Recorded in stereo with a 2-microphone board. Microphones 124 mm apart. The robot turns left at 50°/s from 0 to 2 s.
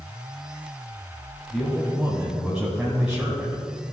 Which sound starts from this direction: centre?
A man speaking, at 1.5 s.